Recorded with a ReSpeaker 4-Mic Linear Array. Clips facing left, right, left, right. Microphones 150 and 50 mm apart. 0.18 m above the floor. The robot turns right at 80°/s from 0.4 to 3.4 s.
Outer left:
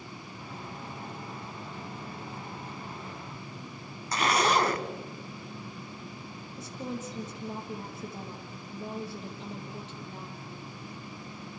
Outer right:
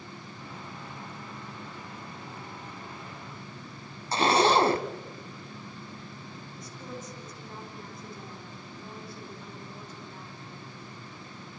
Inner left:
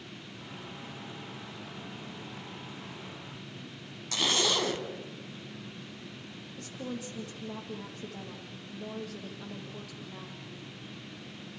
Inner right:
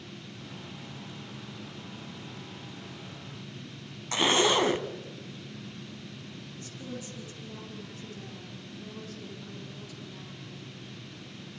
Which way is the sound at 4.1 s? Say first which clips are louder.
Outer right 4 dB, inner right 5 dB; 30° right (ahead or behind).